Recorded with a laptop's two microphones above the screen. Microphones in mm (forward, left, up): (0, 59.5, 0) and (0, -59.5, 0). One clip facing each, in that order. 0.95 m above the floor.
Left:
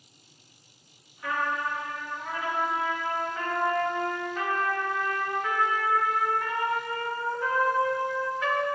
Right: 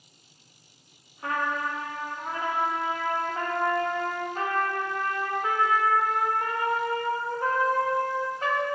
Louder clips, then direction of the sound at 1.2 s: Right 1 dB; 35° right (ahead or behind).